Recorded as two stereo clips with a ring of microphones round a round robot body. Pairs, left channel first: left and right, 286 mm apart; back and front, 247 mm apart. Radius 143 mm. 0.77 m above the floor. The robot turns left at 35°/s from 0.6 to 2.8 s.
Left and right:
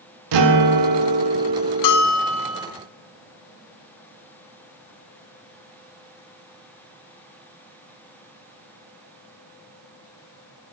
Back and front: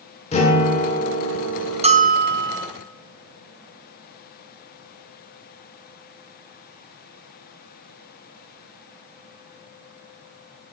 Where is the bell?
65° left, 0.8 m; by 2.7 s 35° left, 0.8 m.